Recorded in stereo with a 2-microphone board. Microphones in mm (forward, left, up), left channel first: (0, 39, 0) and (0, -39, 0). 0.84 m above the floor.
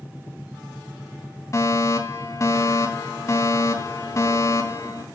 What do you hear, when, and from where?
1.5 s a fire alarm: 40° left (ahead or behind), 2.5 m